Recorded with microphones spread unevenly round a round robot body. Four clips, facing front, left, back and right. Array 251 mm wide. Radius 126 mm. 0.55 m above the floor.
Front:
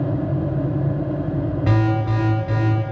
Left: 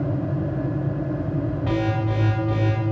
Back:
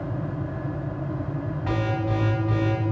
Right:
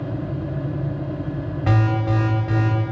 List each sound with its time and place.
1.7 s an alarm: 35° right, 3 m